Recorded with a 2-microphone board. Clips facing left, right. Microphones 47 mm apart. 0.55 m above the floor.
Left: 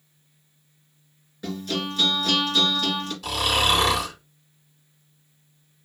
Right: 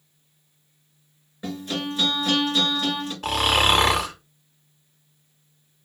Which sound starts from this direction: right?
Snoring, at 3.2 s.